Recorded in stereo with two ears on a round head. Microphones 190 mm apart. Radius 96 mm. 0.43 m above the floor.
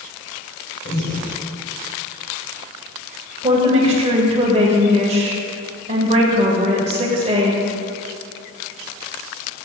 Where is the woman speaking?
30° right (ahead or behind), 1.9 m.